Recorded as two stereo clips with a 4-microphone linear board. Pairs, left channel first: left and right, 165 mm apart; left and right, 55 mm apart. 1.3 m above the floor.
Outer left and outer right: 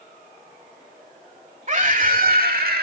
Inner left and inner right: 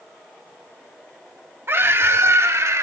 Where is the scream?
50° right (ahead or behind), 2.5 m; by 2.8 s 75° right (ahead or behind), 3 m.